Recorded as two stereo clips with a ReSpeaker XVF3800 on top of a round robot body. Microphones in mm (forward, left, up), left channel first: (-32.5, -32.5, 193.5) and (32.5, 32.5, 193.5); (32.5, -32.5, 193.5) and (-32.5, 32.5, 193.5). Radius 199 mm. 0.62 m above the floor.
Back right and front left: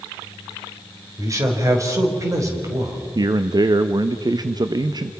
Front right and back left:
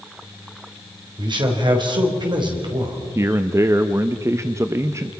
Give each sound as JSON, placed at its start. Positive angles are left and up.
{"t": 1.2, "sound": "a man speaking", "azimuth_deg": 100, "distance_m": 4.0}
{"t": 3.1, "sound": "a man speaking", "azimuth_deg": 80, "distance_m": 0.9}